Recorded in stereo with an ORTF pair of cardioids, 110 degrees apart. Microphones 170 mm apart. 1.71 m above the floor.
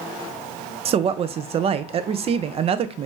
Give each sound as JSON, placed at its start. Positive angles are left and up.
{"t": 0.8, "sound": "a woman speaking", "azimuth_deg": -35, "distance_m": 0.5}